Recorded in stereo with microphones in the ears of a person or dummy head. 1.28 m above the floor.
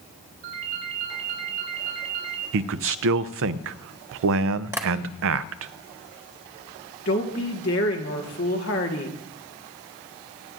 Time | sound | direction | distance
0.4 | a ringtone | 60° right (ahead or behind) | 3.5 m
2.5 | a man speaking | 75° right (ahead or behind) | 0.5 m
4.7 | tapping | 15° right (ahead or behind) | 1.1 m
7.0 | a woman speaking | 60° left (ahead or behind) | 1.5 m